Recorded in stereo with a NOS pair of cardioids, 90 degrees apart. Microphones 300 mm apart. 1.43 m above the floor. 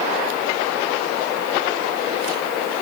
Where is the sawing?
No sawing in this recording.